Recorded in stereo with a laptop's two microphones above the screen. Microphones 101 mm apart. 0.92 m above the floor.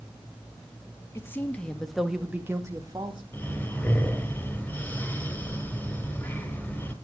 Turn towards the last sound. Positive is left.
turn(degrees=20)  # may be behind; listen again after turning